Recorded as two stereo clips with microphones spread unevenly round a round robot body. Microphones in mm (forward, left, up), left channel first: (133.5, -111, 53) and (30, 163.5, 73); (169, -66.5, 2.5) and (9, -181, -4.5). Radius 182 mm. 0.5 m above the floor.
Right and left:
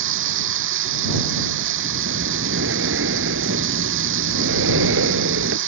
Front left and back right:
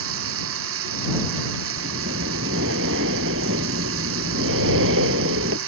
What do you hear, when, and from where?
0.0 s running water: 170° left
1.8 s breathing: 170° left